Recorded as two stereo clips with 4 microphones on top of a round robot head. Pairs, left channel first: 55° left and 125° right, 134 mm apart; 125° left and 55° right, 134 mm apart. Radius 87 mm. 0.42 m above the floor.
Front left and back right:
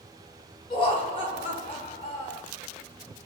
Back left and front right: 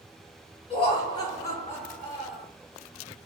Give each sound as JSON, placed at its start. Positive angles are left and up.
{"t": 0.7, "sound": "laughter", "azimuth_deg": 90, "distance_m": 1.9}